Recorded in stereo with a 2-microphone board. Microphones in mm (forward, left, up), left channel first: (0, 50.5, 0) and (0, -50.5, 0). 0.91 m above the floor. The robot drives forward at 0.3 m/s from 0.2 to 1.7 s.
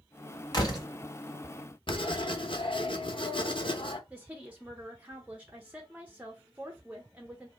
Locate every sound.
0.5 s a door slam: 45° left (ahead or behind), 1.6 m; by 0.9 s 40° left (ahead or behind), 1.7 m
1.9 s writing: 55° left (ahead or behind), 0.6 m
4.1 s a woman speaking: 15° right (ahead or behind), 0.8 m